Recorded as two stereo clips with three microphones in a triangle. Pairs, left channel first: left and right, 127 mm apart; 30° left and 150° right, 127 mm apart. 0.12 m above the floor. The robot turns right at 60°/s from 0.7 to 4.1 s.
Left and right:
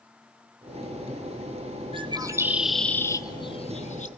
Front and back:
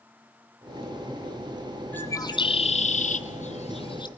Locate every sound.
1.9 s a bird: 45° right, 1.1 m; by 4.1 s 80° left, 1.1 m